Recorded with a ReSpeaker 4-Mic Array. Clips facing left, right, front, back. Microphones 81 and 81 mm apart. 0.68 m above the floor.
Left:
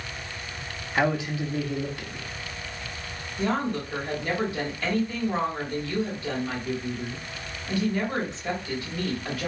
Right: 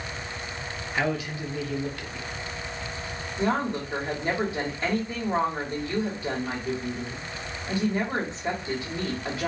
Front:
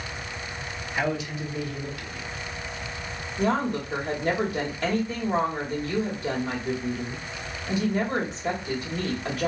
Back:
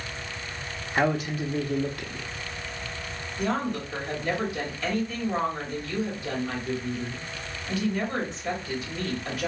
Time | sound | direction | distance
0.9 | a man speaking | 150° left | 0.7 m
3.4 | a woman speaking | 25° right | 1.6 m